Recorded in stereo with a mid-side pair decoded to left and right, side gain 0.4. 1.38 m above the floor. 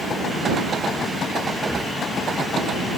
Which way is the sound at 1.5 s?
10° left.